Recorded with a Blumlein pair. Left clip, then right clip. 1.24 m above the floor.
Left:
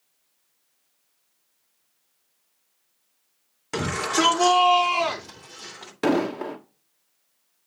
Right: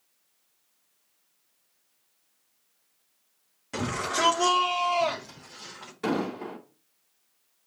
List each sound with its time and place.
3.7 s a shout: 65° left, 3 m; by 5.9 s 75° left, 4 m
6.0 s an explosion: 55° left, 1.4 m